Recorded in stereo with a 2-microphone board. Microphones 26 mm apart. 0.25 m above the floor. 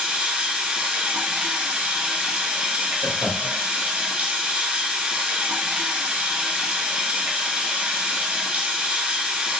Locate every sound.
0.0 s running water: 75° right (ahead or behind), 1.0 m
3.0 s laughter: 5° right (ahead or behind), 1.5 m